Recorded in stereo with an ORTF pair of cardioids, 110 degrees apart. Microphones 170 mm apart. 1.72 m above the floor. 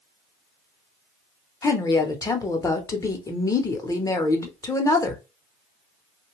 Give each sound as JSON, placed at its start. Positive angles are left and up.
{"t": 1.6, "sound": "a woman speaking", "azimuth_deg": 20, "distance_m": 0.8}